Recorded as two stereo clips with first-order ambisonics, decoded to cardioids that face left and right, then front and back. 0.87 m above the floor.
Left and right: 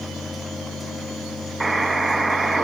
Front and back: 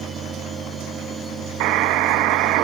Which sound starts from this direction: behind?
A buzzer, at 1.6 s.